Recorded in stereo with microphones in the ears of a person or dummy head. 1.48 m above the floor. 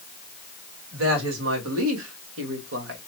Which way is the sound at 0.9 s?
80° right.